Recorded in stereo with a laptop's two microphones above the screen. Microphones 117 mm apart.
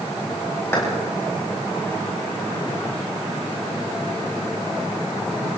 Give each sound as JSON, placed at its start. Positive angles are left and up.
{"t": 0.7, "sound": "a clap", "side_deg": 25, "distance_m": 5.5}